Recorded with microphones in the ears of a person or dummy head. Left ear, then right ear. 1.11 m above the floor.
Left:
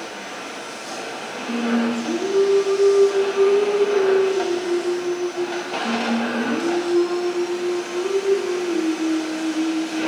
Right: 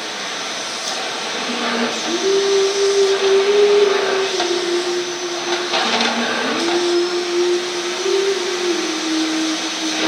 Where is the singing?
80° right, 3 m.